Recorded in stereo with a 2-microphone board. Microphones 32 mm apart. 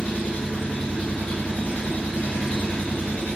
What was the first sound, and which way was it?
An engine running, 55° left (ahead or behind).